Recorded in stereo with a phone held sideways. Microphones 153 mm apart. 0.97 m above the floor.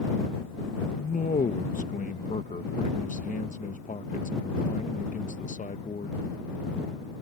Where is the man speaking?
55° left (ahead or behind).